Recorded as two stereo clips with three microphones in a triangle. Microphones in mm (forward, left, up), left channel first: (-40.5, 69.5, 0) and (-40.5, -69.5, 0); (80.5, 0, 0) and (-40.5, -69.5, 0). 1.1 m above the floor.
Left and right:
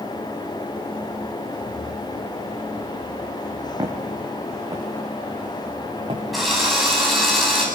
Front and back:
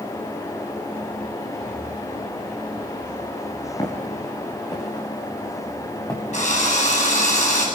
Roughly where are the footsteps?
Ahead right.